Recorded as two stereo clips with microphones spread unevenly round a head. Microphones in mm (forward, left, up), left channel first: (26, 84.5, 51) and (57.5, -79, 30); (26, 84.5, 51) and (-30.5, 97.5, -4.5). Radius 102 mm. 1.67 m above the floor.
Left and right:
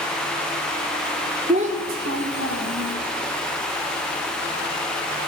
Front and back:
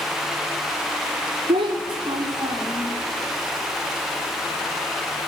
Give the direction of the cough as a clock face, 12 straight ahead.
I don't hear a cough.